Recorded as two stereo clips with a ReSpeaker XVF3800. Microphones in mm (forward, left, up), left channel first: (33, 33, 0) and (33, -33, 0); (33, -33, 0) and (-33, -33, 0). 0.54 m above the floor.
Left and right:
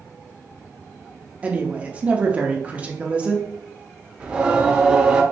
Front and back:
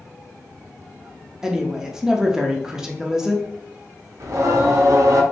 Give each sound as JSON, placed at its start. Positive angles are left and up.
{"t": 1.4, "sound": "a woman speaking", "azimuth_deg": -115, "distance_m": 0.7}
{"t": 4.2, "sound": "singing", "azimuth_deg": -160, "distance_m": 0.7}